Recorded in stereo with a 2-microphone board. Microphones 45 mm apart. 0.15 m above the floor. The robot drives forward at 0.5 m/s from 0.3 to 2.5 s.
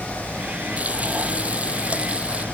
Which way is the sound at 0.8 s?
30° right (ahead or behind).